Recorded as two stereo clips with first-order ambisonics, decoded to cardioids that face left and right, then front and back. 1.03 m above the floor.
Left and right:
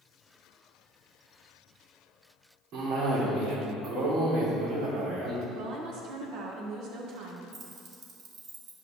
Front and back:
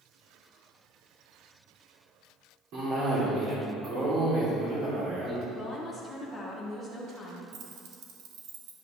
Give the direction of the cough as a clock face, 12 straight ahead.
4 o'clock.